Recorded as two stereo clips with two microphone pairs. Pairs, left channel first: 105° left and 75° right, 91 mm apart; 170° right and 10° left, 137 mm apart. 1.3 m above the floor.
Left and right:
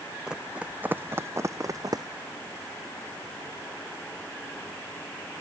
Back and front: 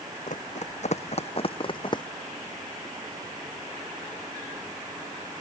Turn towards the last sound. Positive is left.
turn(degrees=-110)